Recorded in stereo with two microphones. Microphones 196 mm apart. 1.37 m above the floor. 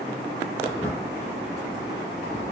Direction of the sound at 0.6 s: 10° left (ahead or behind).